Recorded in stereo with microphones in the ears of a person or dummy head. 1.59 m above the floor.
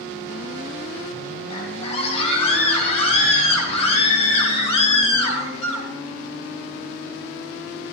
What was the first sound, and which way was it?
A scream, 35° left (ahead or behind).